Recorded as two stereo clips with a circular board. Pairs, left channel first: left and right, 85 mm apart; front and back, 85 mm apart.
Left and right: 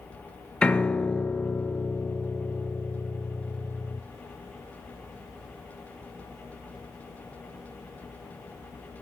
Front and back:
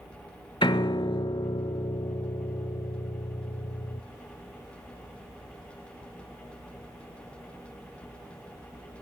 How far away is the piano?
About 0.6 m.